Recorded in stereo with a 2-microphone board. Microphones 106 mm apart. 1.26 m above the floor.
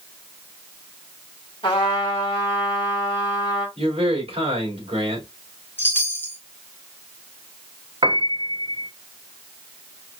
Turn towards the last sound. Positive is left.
turn(degrees=-55)  # may be behind; listen again after turning